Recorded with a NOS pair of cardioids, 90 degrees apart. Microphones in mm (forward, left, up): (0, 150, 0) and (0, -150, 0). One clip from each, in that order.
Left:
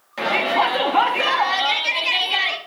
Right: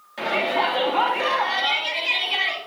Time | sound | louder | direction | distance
0.2 | a shout | left 3 dB | 30° left | 2.5 m